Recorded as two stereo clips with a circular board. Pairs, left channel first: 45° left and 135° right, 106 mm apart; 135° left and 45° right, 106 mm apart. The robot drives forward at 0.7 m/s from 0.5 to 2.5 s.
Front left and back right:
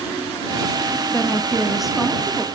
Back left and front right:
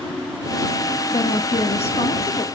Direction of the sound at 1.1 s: 115° left.